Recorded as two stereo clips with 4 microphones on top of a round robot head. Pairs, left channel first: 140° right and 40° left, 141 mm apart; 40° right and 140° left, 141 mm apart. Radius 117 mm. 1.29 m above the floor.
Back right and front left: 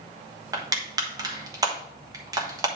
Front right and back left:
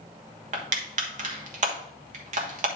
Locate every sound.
0.5 s crushing: 105° left, 1.4 m